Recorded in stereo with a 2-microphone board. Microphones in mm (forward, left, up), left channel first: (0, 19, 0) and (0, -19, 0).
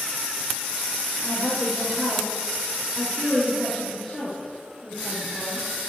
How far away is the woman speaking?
About 5 m.